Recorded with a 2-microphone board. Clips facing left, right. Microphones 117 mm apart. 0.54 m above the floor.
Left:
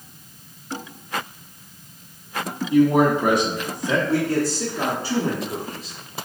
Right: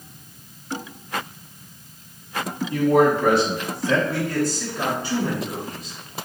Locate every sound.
2.7 s a man speaking: 15° left (ahead or behind), 0.9 m
4.1 s a man speaking: 35° left (ahead or behind), 1.1 m